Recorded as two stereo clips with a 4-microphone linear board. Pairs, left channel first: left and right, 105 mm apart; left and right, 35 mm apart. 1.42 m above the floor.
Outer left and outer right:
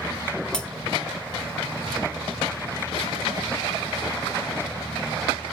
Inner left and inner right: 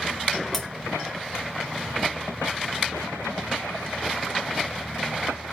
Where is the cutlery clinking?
10° left (ahead or behind), 0.9 m.